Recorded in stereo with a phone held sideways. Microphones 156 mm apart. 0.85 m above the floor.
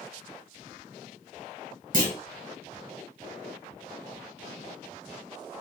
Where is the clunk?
60° right (ahead or behind), 1.5 m.